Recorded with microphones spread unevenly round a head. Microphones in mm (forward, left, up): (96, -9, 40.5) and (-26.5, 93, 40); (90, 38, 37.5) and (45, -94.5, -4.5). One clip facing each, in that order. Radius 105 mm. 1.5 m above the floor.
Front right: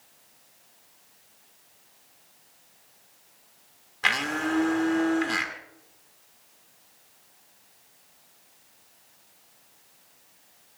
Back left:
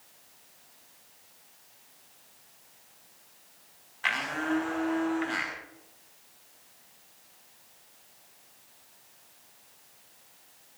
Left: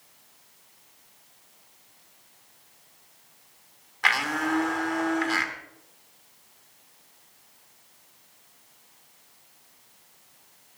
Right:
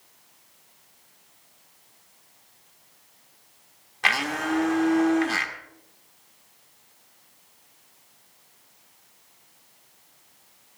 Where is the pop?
I don't hear a pop.